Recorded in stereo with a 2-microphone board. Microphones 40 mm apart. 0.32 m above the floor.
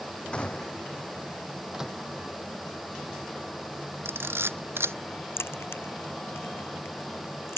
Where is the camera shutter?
80° right.